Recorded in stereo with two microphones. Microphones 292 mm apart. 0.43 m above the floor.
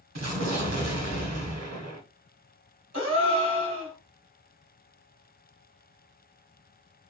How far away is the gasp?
About 1.8 m.